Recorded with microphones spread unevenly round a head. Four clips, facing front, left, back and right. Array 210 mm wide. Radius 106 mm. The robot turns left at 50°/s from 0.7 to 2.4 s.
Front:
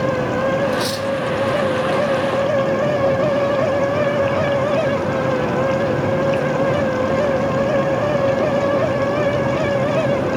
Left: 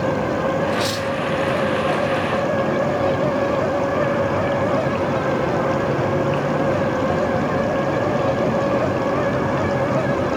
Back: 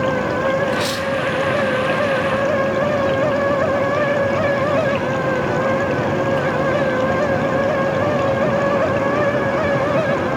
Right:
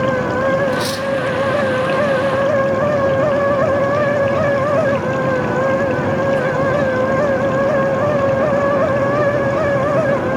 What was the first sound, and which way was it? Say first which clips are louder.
Cutlery clinking: right 2 dB, even; 15° right.